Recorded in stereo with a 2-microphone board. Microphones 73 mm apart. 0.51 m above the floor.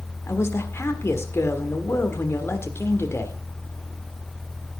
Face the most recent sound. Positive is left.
turn(degrees=35)  # may be behind; listen again after turning